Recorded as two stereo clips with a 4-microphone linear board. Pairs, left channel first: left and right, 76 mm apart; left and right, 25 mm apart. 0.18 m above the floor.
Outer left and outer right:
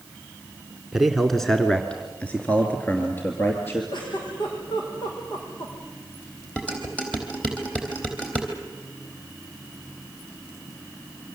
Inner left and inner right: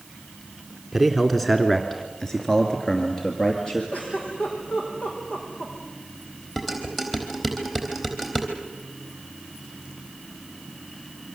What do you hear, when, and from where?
0.9 s a man speaking: 5° right (ahead or behind), 1.6 m; by 3.8 s 30° left (ahead or behind), 3 m
3.9 s a giggle: 70° left (ahead or behind), 6 m
6.6 s dishes clattering: 15° left (ahead or behind), 4 m